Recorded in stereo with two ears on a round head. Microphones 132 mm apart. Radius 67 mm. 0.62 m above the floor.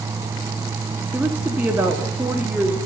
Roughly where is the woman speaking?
Centre.